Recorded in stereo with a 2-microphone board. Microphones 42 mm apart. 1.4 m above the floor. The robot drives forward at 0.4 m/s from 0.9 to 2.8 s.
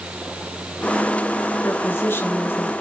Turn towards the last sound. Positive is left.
turn(degrees=55)  # may be behind; listen again after turning